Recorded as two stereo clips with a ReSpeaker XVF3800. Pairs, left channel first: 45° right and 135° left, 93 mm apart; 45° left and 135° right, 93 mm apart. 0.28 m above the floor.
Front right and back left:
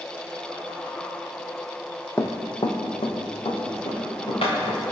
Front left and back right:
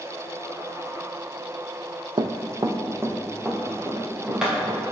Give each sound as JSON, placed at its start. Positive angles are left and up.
{"t": 2.2, "sound": "running footsteps", "azimuth_deg": -110, "distance_m": 0.5}